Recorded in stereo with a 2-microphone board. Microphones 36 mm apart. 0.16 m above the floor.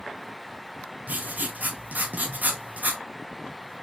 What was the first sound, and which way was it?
Writing, 45° right (ahead or behind).